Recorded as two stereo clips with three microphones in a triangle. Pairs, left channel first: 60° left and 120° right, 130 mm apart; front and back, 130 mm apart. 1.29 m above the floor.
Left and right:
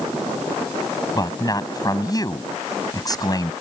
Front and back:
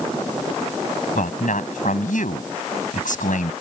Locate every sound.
1.1 s a man speaking: straight ahead